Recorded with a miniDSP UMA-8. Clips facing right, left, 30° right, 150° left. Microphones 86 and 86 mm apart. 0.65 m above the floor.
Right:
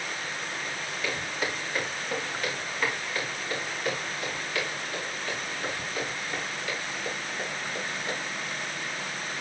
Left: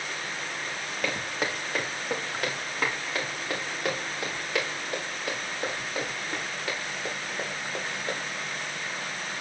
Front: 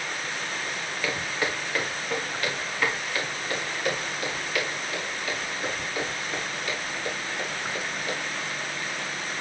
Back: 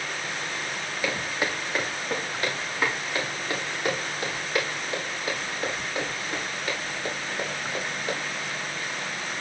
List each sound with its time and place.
1.0 s footsteps: 70° left, 2.5 m; by 8.1 s 100° left, 8.5 m